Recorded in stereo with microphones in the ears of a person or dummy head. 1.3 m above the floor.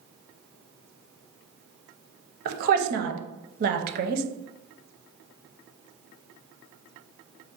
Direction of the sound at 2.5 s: 50° right (ahead or behind).